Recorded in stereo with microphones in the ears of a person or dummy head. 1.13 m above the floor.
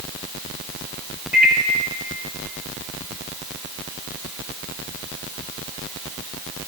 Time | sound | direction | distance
1.3 | a microwave | 10° right (ahead or behind) | 1.6 m